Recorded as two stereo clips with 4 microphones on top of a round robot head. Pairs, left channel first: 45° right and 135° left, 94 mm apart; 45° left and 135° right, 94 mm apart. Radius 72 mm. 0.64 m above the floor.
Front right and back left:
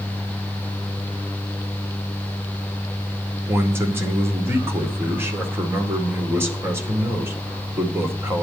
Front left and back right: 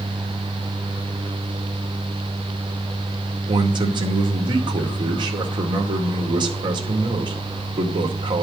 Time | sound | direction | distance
3.5 | a man speaking | 165° right | 2.5 m